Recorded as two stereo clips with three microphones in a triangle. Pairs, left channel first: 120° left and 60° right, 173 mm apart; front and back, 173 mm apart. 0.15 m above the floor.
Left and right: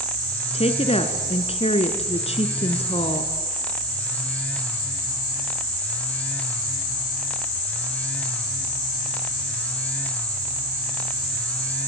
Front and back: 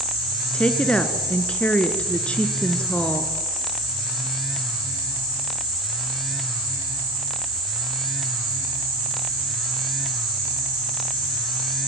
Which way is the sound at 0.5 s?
80° left.